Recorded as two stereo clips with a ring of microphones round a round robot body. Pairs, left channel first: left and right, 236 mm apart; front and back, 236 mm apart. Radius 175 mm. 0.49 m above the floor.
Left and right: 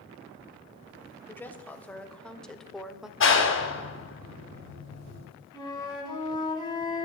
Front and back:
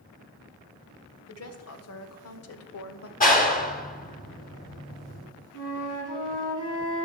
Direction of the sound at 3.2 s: 55° left.